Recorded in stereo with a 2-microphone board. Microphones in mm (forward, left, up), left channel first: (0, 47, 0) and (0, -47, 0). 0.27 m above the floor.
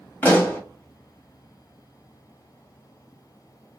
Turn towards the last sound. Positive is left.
turn(degrees=20)  # may be behind; listen again after turning